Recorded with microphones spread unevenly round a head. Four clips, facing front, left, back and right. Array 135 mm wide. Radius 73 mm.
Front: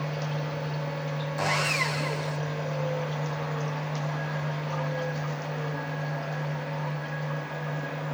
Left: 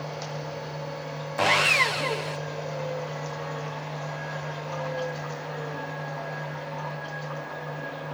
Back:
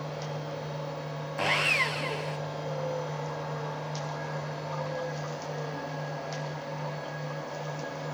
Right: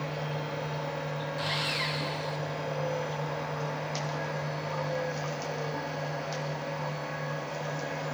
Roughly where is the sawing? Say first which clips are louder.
Left 15 dB, even; left.